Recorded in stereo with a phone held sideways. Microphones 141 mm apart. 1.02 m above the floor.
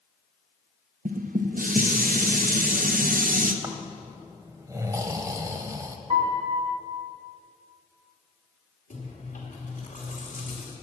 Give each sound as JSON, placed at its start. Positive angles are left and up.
{"t": 1.1, "sound": "dishes clattering", "side_deg": -80, "distance_m": 0.6}
{"t": 3.6, "sound": "snoring", "side_deg": -25, "distance_m": 0.8}
{"t": 6.1, "sound": "a piano", "side_deg": -40, "distance_m": 1.7}
{"t": 8.9, "sound": "chewing", "side_deg": 70, "distance_m": 2.5}